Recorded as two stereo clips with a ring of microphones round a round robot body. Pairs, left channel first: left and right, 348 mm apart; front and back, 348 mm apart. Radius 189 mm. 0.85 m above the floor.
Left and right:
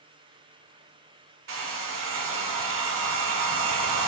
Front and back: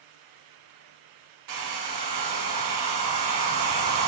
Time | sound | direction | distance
1.5 | a hair dryer | 135° right | 0.9 m